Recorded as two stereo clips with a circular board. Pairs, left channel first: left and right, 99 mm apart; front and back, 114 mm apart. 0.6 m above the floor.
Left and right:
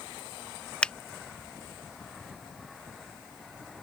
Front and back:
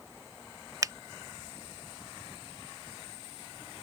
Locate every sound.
0.8 s a finger snap: 160° left